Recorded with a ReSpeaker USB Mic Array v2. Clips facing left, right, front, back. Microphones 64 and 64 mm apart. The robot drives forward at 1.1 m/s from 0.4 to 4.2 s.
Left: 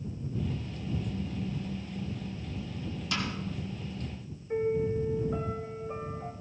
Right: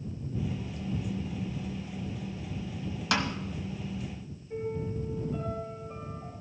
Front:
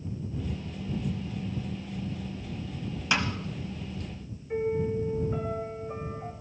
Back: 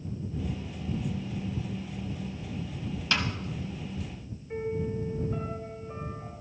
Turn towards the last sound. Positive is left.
turn(degrees=80)